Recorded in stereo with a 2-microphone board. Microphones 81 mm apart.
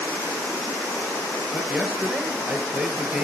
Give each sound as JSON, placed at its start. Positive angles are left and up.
{"t": 1.5, "sound": "a man speaking", "side_deg": -10, "distance_m": 3.0}